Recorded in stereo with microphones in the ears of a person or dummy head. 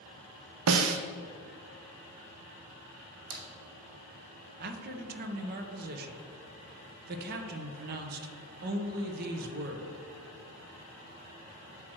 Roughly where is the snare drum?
Right.